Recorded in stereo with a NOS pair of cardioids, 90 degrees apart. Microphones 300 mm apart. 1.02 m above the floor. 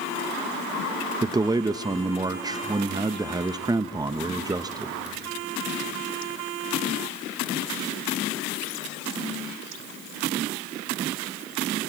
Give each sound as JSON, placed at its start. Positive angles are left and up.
{"t": 1.2, "sound": "a man speaking", "azimuth_deg": -15, "distance_m": 0.6}